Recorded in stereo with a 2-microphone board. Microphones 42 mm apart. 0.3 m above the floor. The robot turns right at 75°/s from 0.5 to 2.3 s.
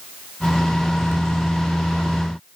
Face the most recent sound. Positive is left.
No sound to turn to.